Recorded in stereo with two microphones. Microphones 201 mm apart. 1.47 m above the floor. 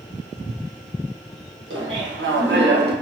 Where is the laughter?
80° right, 1.3 m; by 2.9 s 55° right (ahead or behind), 0.7 m.